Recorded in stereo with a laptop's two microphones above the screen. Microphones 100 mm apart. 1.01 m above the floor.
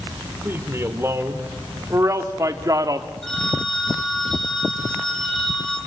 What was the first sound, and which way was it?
A man speaking, 25° right (ahead or behind).